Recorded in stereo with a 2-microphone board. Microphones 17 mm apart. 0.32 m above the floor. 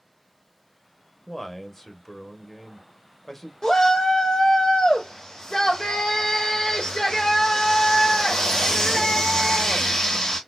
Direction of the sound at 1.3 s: 20° left (ahead or behind).